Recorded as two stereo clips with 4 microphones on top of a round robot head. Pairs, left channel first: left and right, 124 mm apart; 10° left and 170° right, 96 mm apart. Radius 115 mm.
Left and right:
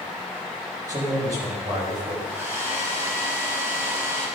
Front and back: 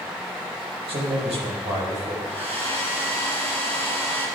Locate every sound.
0.9 s a man speaking: 155° right, 5.5 m
2.3 s a hair dryer: 165° right, 4 m